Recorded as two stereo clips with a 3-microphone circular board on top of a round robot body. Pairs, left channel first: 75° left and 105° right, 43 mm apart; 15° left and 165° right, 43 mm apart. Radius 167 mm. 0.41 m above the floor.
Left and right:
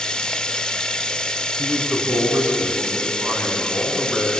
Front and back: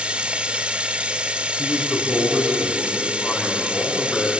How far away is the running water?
About 1.3 m.